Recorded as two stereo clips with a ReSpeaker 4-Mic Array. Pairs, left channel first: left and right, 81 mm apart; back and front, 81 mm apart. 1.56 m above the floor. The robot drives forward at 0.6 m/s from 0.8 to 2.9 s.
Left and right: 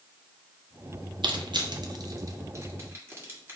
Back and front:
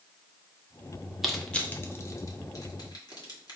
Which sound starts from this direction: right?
Crushing, at 1.2 s.